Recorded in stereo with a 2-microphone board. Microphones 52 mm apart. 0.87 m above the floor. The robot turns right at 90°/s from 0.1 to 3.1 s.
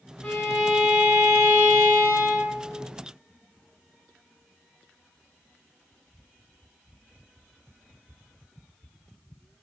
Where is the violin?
140° left, 1.0 m; by 2.8 s 15° left, 1.0 m.